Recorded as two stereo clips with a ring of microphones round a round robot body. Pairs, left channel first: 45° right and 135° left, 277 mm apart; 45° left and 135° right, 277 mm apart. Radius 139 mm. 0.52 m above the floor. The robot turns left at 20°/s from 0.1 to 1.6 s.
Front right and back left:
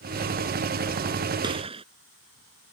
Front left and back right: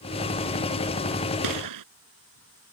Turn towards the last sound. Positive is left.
turn(degrees=-155)